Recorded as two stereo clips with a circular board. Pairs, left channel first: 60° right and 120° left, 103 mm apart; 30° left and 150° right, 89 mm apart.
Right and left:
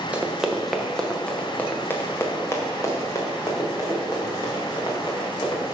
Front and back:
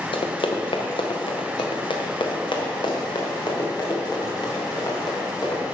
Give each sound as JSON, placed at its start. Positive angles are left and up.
{"t": 0.1, "sound": "running footsteps", "azimuth_deg": 45, "distance_m": 1.3}